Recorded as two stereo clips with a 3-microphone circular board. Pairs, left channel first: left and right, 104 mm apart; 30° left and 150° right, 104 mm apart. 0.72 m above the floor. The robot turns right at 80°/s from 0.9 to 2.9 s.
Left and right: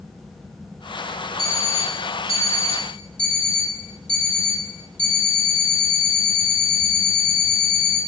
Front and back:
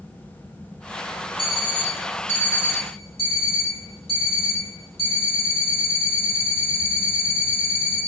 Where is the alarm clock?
110° right, 1.4 m; by 8.0 s 10° left, 1.4 m.